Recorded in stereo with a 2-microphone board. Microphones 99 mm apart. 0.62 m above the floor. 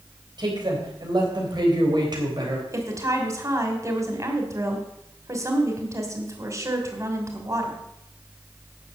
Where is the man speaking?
45° right (ahead or behind), 3.5 m.